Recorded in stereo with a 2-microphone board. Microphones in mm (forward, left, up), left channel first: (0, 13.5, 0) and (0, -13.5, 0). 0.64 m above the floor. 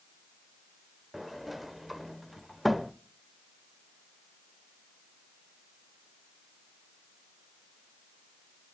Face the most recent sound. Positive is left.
turn(degrees=-5)  # may be behind; listen again after turning